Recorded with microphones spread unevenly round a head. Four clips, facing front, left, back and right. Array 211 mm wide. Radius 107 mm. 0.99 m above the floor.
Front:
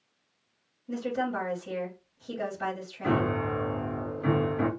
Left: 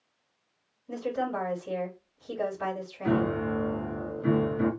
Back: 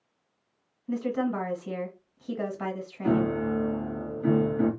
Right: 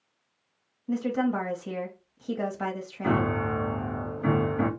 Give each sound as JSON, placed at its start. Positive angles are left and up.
{"t": 0.9, "sound": "a woman speaking", "azimuth_deg": -110, "distance_m": 1.4}
{"t": 3.0, "sound": "a piano", "azimuth_deg": -60, "distance_m": 1.4}